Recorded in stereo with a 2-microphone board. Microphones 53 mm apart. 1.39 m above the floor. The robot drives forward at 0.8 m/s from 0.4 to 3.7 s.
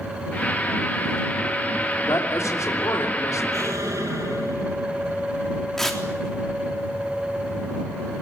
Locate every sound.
2.1 s a man speaking: 65° left (ahead or behind), 3 m; by 3.4 s 85° left, 3 m
3.5 s an explosion: 80° right, 5.5 m
5.8 s tearing paper: 5° left (ahead or behind), 3.5 m